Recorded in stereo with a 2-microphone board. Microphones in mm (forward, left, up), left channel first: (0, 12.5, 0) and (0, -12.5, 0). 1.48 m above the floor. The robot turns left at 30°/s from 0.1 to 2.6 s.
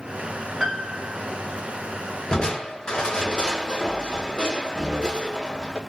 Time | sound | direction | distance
0.6 | a piano | 25° right (ahead or behind) | 0.8 m
2.3 | crushing | 30° left (ahead or behind) | 1.0 m